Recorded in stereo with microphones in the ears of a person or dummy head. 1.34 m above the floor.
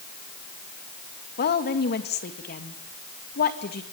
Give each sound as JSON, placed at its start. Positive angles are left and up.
{"t": 1.4, "sound": "a woman speaking", "side_deg": 45, "distance_m": 2.0}